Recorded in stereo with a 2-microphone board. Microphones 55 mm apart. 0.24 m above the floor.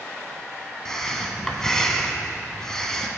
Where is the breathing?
10° left (ahead or behind), 0.9 m.